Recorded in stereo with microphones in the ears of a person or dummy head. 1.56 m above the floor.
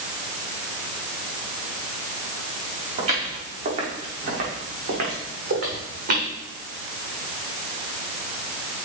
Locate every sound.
3.0 s footsteps: 40° right (ahead or behind), 6 m; by 6.3 s 60° right (ahead or behind), 5.5 m